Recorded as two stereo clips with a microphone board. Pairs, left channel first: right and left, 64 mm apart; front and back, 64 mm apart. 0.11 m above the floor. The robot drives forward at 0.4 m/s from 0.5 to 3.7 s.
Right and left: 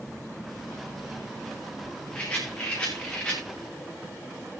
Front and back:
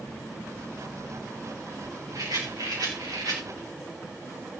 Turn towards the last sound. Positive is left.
turn(degrees=-165)